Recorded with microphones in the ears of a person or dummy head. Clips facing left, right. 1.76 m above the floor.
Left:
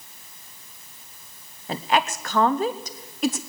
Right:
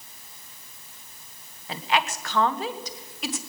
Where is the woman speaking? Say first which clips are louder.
Left 3 dB; 40° left (ahead or behind), 0.8 m.